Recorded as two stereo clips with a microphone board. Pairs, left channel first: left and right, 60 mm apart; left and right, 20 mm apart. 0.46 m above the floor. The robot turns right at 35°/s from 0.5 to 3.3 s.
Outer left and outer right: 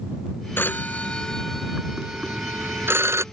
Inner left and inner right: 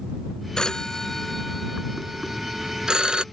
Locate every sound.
0.6 s a phone ringing: 140° left; by 3.2 s 125° right